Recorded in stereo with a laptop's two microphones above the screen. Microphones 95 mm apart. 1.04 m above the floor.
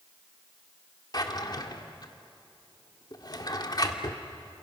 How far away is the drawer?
About 1.7 m.